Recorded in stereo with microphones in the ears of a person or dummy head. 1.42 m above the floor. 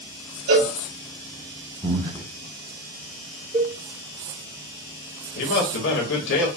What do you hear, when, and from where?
0.5 s a cowbell: 70° right (ahead or behind), 1.6 m
1.8 s breathing: 20° right (ahead or behind), 0.6 m
3.5 s a cowbell: 30° right (ahead or behind), 1.5 m
5.3 s a man speaking: 65° left (ahead or behind), 1.5 m